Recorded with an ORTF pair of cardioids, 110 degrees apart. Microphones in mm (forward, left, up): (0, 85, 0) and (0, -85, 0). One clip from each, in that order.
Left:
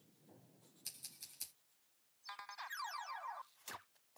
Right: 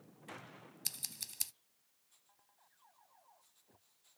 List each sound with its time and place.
0.8 s scissors: 60° right, 0.7 m